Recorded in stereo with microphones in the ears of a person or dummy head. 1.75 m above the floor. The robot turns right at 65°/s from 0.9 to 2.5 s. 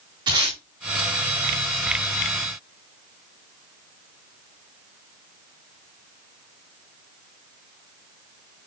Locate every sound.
0.3 s tape being pulled: 25° right (ahead or behind), 3 m